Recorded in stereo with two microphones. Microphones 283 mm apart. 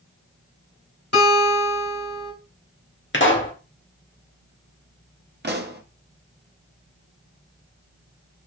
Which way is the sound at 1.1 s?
55° left (ahead or behind).